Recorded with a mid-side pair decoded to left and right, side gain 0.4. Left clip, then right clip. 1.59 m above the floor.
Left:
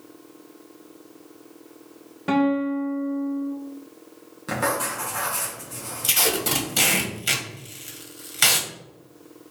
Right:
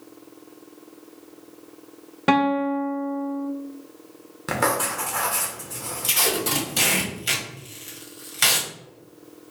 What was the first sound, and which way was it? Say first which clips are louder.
A guitar: right 2 dB; 65° right.